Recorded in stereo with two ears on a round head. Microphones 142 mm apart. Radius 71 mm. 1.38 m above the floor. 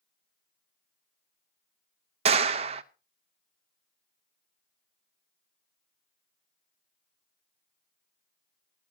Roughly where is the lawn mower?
No lawn mower in this recording.